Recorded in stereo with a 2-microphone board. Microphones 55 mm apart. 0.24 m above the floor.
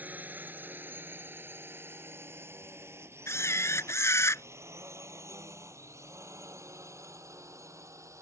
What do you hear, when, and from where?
0.0 s a drone: 30° right (ahead or behind); by 8.2 s 65° right (ahead or behind)
3.3 s a camera shutter: 55° left (ahead or behind)